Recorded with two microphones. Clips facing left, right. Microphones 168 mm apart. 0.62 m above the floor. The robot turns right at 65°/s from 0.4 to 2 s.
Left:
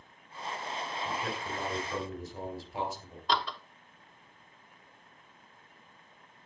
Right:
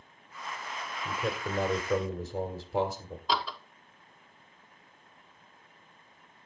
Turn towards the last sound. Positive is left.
turn(degrees=-5)  # may be behind; listen again after turning